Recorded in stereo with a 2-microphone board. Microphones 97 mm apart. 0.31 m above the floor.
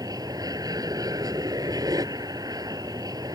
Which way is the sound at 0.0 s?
40° right (ahead or behind).